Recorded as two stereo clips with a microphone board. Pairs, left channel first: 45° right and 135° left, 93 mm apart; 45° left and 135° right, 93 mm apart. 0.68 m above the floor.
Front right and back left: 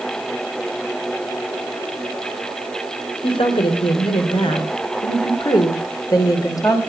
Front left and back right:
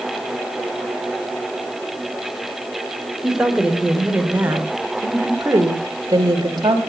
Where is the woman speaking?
50° right, 3 m; by 6.8 s 95° right, 3 m.